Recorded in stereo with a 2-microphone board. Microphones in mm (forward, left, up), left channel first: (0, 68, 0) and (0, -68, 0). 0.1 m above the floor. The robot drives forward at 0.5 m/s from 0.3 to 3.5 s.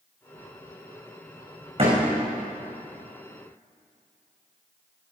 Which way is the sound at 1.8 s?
40° right (ahead or behind).